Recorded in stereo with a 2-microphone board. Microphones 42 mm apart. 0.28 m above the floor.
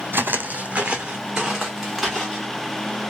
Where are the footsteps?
60° right (ahead or behind), 0.6 m; by 2.5 s centre (ahead or behind), 1.7 m.